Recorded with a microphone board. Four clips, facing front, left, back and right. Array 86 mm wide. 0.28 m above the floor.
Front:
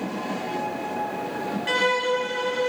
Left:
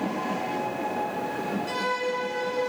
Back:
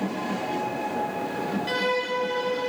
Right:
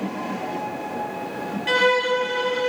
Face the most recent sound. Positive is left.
turn(degrees=-75)